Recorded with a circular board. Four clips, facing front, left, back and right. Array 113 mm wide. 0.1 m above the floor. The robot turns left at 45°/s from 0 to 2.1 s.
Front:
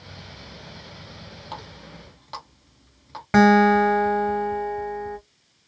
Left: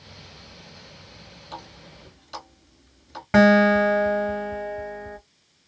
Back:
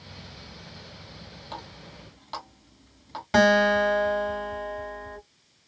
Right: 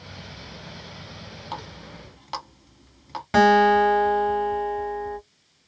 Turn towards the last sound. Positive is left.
turn(degrees=30)